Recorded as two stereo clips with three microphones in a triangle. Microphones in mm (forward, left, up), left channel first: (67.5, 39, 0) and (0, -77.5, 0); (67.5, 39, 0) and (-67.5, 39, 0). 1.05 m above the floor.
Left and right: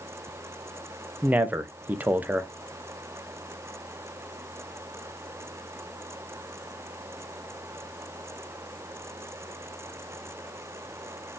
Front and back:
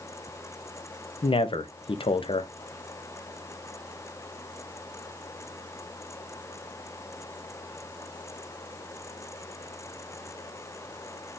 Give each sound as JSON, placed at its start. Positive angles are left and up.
{"t": 1.2, "sound": "a man speaking", "azimuth_deg": -45, "distance_m": 0.6}